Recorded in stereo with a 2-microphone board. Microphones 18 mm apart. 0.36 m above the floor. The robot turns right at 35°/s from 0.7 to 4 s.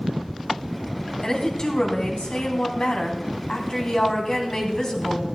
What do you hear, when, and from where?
1.2 s a woman speaking: 35° left, 3 m; by 5.4 s 130° left, 3 m